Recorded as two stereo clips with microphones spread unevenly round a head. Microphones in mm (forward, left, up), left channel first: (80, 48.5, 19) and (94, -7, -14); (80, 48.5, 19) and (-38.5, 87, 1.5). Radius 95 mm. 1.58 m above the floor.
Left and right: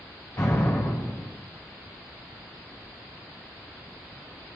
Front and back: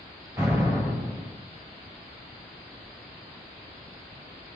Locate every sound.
0.4 s an explosion: 90° left, 4 m